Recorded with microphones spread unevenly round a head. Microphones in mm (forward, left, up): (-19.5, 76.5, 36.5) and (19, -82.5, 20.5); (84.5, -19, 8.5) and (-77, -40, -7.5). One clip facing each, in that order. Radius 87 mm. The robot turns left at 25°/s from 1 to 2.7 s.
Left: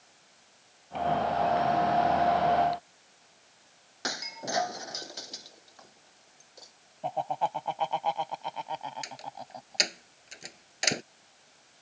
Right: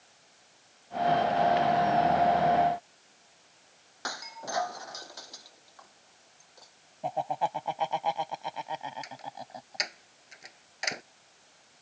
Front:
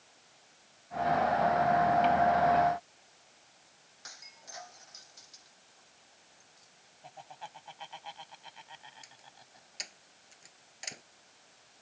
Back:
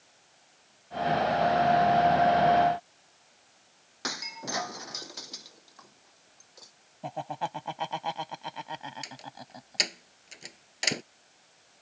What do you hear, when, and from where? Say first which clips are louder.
4.0 s breaking glass: left 2 dB, back 19 dB; 170° left
7.0 s laughter: even, back 14 dB; 160° right
9.0 s a door slam: even, back 14 dB; 160° left